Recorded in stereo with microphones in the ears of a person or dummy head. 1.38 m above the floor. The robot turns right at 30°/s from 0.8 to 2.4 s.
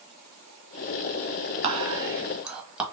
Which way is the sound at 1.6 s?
30° right (ahead or behind).